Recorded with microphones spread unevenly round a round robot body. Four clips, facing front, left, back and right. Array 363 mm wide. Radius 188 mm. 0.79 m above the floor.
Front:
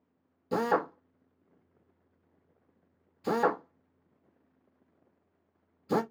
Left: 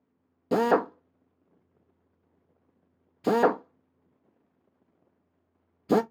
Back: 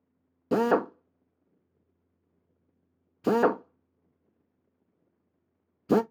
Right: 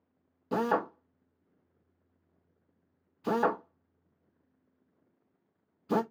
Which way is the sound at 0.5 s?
130° left.